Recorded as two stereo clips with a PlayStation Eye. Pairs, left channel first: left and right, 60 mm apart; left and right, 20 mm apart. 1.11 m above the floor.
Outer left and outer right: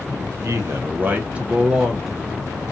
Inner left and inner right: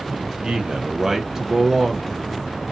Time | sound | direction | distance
0.1 | a man speaking | 60° right (ahead or behind) | 0.8 m